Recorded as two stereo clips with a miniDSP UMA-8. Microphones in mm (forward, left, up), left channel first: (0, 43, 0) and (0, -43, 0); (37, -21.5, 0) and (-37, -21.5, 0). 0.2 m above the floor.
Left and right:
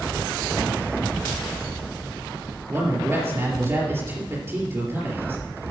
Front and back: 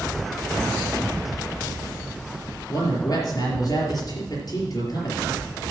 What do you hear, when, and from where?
2.7 s a man speaking: 35° right, 4 m